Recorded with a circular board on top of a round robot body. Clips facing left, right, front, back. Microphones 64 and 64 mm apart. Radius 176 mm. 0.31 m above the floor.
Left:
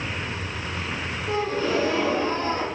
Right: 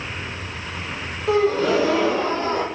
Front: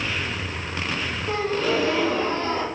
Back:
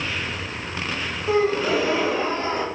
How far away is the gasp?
About 0.5 m.